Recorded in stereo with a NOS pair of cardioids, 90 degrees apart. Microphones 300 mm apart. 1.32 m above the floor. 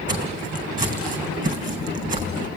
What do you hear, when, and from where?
0.1 s footsteps: 30° right, 4.5 m